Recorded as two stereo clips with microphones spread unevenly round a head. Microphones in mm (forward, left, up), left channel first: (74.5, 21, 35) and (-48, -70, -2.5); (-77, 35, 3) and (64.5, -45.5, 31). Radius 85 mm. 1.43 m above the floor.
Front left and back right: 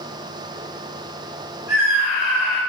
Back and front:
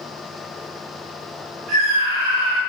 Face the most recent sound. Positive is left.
turn(degrees=-65)